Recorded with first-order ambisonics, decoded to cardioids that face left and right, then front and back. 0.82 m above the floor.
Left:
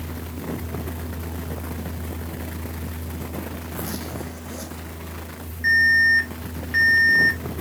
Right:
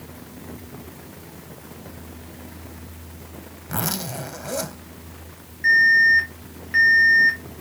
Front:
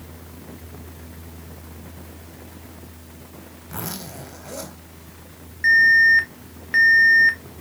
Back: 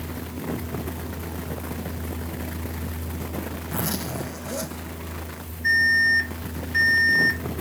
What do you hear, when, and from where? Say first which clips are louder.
3.7 s a zipper: right 7 dB, back 3 dB; 90° right, 2 m
5.6 s an alarm: right 2 dB, front 5 dB; straight ahead, 2.5 m